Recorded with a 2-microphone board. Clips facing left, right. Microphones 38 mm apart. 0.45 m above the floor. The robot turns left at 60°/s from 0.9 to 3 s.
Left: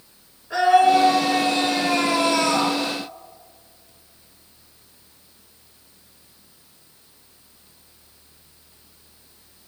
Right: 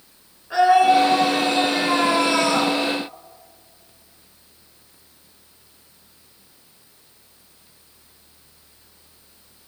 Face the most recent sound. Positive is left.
turn(degrees=-150)